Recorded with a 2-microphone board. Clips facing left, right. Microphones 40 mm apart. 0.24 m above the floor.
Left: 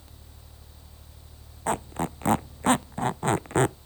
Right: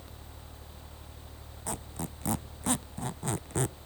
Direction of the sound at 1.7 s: 40° left (ahead or behind).